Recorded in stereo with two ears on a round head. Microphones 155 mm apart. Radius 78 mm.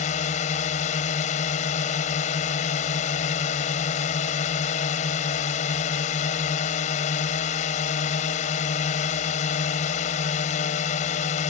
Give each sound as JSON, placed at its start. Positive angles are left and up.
{"t": 0.0, "sound": "a drone", "side_deg": 45}